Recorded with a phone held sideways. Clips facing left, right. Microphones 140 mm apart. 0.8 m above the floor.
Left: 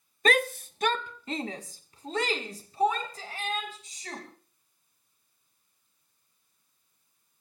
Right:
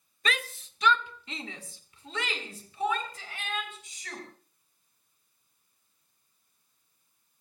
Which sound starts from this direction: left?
A shout, at 0.2 s.